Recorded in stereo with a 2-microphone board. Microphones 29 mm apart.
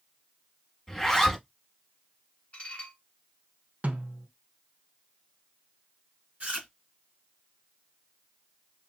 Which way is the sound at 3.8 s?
55° right (ahead or behind).